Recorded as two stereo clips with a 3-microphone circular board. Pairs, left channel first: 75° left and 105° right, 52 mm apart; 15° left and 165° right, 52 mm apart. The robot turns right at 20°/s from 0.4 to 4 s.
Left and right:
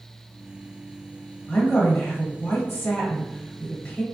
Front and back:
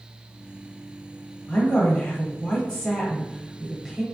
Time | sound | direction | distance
1.5 | a woman speaking | 60° left | 1.1 m